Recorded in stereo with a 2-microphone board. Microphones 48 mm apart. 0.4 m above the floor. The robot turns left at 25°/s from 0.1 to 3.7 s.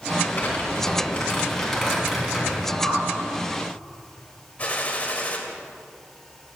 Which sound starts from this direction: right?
A whoosh, at 2.8 s.